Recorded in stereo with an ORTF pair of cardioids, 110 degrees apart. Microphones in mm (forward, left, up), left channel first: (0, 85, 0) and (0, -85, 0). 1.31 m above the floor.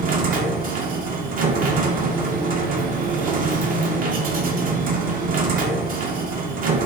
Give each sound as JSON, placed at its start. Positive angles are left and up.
{"t": 0.0, "sound": "a machine running", "azimuth_deg": -60, "distance_m": 0.8}